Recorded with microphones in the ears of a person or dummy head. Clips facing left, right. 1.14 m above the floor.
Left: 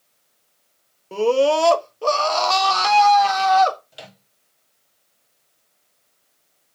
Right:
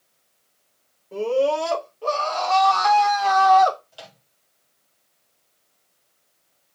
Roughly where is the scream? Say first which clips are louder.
Left 4 dB; left.